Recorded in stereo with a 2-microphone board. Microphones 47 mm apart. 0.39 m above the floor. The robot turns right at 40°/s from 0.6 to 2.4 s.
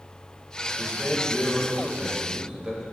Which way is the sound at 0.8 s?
145° left.